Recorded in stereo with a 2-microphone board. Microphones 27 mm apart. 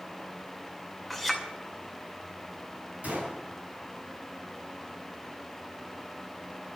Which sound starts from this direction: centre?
A clink, at 1.1 s.